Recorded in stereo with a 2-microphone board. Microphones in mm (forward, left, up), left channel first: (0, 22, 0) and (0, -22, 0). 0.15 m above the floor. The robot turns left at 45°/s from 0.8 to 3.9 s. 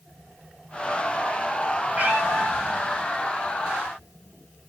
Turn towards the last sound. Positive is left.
turn(degrees=-120)